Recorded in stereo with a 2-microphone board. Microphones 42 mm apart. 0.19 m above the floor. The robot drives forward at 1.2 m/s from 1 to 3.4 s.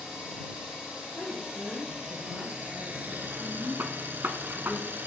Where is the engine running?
15° right (ahead or behind), 3.5 m; by 5.1 s 45° right (ahead or behind), 1.2 m.